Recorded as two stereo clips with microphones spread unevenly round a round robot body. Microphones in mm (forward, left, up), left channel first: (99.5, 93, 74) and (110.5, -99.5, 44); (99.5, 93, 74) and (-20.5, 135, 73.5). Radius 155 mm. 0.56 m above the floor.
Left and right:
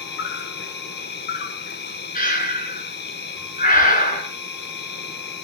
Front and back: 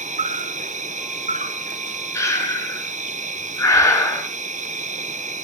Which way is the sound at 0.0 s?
140° left.